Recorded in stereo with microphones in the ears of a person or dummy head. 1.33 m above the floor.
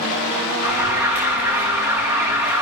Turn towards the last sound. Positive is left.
turn(degrees=-10)  # may be behind; listen again after turning